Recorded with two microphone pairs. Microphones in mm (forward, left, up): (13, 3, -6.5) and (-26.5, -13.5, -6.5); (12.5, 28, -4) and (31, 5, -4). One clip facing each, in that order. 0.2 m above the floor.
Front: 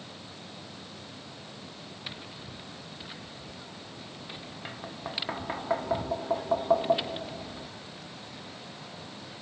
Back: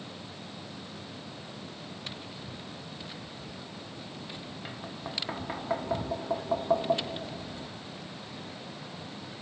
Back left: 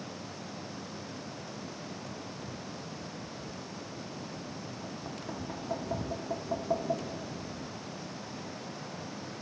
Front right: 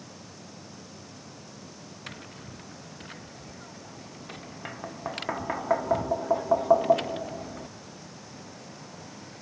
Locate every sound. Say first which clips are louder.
2.1 s tapping: front 2 dB, back left 1 dB; 55° right